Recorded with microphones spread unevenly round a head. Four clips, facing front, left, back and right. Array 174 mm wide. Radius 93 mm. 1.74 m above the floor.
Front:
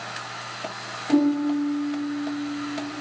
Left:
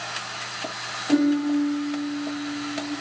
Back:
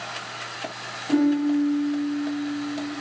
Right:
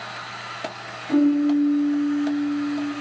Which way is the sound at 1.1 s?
75° left.